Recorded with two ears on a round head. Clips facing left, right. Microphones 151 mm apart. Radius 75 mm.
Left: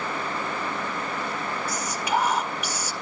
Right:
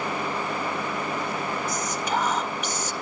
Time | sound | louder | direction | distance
1.7 | whispering | even | 10° left (ahead or behind) | 1.6 m